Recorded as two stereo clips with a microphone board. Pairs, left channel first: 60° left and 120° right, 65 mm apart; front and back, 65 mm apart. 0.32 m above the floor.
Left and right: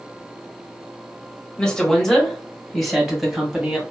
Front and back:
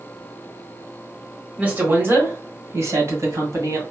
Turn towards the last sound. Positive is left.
turn(degrees=155)